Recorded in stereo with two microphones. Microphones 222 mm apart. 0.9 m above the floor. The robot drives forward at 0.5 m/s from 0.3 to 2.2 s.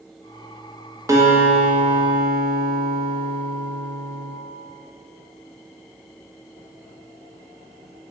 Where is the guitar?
15° right (ahead or behind), 0.6 m; by 4.3 s 5° right (ahead or behind), 1.1 m.